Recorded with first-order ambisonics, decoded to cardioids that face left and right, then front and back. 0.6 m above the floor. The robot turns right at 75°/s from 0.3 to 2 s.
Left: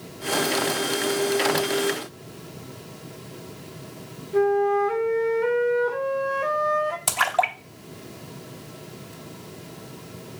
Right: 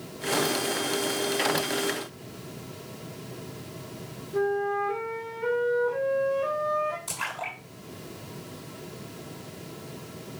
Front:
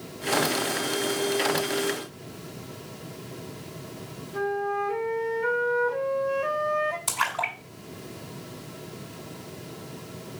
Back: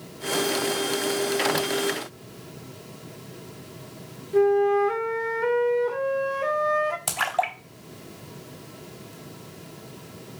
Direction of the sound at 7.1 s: 115° left.